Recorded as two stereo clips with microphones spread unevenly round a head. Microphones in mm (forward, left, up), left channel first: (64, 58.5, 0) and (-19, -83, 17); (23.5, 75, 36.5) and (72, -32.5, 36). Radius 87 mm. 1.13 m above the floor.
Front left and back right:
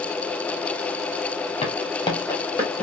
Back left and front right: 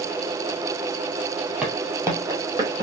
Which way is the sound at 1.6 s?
10° left.